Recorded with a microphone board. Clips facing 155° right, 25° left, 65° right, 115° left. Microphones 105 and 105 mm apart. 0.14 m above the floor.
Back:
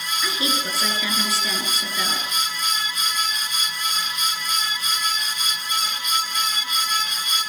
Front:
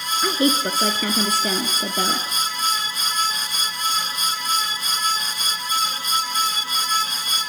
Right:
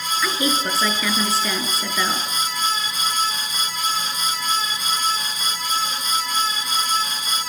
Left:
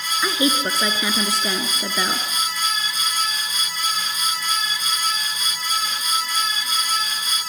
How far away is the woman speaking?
About 2 m.